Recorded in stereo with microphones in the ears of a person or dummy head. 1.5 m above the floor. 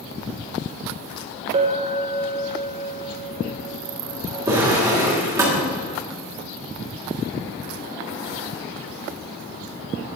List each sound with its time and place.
1.5 s a clink: 30° right (ahead or behind), 0.8 m
4.5 s a drawer: 20° right (ahead or behind), 2 m